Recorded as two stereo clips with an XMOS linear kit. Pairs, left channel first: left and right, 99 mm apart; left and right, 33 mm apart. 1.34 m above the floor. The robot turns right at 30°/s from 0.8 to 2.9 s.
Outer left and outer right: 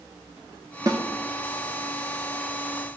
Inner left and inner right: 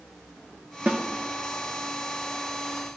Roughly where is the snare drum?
Right.